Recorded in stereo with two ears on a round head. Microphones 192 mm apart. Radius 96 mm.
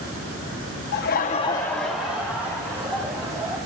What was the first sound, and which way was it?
Laughter, 50° left (ahead or behind).